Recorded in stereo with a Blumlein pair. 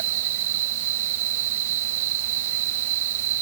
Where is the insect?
55° right.